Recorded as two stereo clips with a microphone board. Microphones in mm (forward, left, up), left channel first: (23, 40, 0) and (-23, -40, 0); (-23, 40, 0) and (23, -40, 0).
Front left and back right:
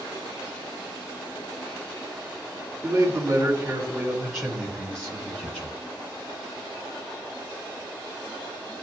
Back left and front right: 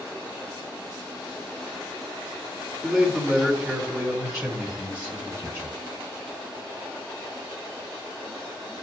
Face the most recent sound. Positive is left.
turn(degrees=0)